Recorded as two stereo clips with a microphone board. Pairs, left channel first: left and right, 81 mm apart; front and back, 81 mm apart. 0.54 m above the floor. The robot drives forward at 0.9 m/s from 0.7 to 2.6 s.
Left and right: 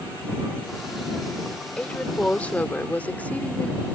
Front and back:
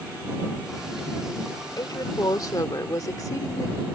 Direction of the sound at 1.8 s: 15° left.